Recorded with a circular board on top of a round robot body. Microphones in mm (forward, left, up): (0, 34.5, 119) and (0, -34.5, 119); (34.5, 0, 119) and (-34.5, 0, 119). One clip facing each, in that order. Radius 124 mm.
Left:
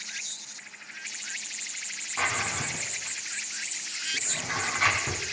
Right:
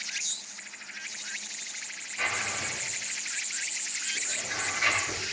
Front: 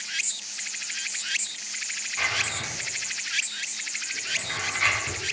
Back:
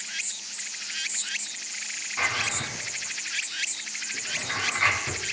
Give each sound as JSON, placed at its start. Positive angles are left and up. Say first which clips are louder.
{"t": 2.2, "sound": "a drawer", "louder": "left 3 dB, back 1 dB", "azimuth_deg": 110, "distance_m": 2.5}